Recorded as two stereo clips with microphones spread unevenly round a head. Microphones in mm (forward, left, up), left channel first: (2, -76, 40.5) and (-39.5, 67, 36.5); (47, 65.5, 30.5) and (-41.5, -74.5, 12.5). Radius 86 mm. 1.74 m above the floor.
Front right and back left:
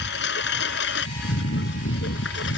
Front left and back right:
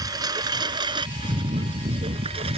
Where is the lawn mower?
50° right; by 2.6 s 65° right.